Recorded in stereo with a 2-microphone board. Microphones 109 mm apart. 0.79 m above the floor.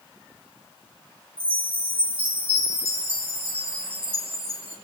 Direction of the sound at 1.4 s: 60° right (ahead or behind).